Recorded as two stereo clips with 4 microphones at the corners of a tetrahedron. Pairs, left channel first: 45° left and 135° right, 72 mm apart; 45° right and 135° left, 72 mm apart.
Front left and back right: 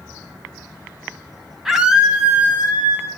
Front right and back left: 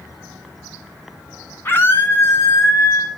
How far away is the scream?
About 1.8 m.